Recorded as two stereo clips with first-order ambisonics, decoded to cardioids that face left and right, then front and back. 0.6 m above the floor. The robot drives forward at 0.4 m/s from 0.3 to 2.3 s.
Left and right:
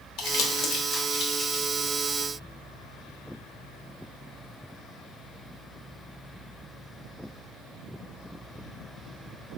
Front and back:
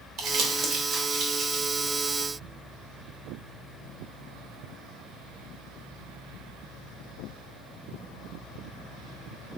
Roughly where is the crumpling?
Behind left.